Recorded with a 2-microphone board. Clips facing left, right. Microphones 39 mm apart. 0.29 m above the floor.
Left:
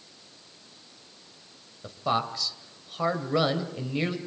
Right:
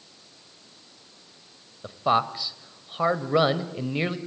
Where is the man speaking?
20° right (ahead or behind), 1.6 m.